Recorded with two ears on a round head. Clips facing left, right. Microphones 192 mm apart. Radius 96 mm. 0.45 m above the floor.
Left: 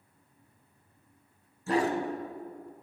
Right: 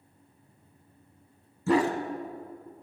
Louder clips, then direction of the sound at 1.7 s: Right 4 dB; 65° right (ahead or behind).